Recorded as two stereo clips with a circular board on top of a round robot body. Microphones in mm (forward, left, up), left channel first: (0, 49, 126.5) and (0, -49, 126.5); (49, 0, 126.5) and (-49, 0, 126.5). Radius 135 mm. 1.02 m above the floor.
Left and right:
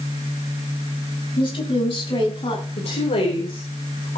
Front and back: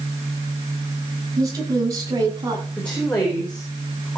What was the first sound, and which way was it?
A woman speaking, 125° left.